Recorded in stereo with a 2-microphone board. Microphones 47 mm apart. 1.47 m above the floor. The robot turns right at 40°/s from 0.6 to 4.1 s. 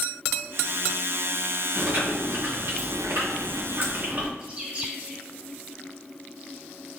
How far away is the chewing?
About 2.5 m.